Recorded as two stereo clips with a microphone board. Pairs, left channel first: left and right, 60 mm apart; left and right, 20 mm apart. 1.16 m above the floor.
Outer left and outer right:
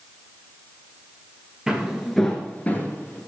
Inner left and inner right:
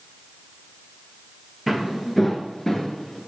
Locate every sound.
1.7 s footsteps: 10° right (ahead or behind), 1.4 m; by 3.2 s 30° left (ahead or behind), 1.8 m